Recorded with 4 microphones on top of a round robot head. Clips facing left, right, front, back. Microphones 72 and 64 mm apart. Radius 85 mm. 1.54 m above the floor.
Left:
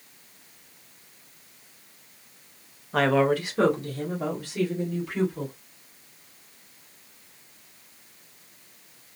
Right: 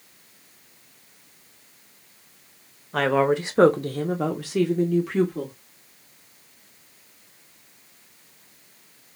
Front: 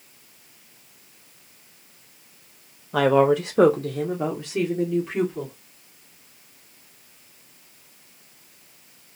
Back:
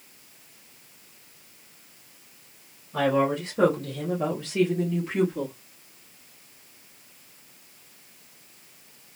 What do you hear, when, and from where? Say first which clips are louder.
2.9 s a woman speaking: right 1 dB, front 6 dB; 5° left, 0.6 m; by 5.5 s 95° right, 1.4 m